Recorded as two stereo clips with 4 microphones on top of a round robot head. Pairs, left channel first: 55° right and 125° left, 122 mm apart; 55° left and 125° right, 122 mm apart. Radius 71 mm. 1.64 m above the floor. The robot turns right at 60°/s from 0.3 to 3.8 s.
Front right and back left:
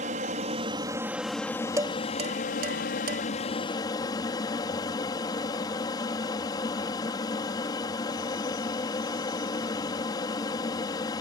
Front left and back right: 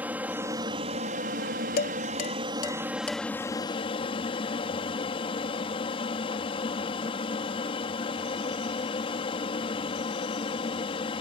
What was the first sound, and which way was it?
An aircraft, 155° left.